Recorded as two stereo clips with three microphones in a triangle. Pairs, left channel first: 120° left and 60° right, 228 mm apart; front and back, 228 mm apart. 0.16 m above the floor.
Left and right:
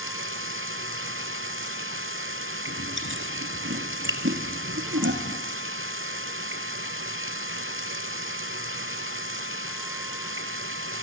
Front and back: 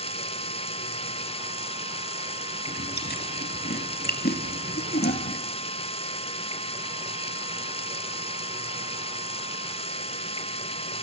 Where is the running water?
65° right, 1.2 m.